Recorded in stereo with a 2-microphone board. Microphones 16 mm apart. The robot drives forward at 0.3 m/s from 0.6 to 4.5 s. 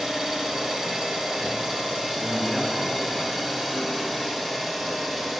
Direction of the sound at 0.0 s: 60° right (ahead or behind).